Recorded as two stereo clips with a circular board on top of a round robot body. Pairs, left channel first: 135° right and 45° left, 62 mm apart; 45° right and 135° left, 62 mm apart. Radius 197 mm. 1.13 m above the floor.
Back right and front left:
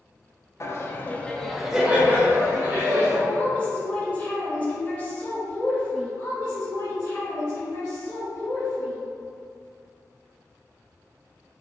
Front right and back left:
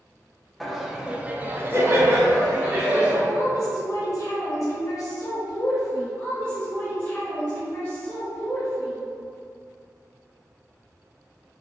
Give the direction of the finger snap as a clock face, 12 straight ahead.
No finger snap in this recording.